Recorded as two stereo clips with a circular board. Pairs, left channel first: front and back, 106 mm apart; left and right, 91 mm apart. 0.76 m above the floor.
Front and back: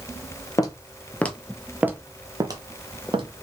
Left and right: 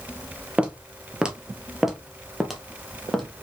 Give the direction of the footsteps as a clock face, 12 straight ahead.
1 o'clock.